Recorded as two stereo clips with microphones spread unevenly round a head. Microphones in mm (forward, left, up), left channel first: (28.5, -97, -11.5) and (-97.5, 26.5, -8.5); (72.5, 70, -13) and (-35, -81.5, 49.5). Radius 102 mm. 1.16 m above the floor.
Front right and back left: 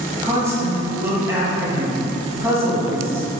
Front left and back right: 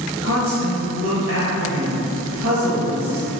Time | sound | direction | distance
0.2 | a woman speaking | 150° right | 1.6 m